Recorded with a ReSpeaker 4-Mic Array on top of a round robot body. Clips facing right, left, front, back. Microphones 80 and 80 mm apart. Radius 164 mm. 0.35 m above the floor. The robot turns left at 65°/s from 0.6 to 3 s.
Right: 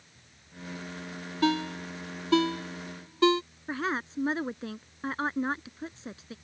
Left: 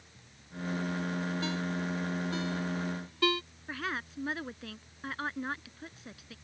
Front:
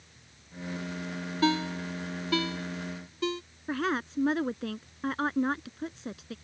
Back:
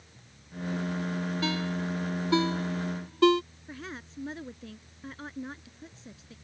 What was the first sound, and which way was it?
A ringtone, 55° right.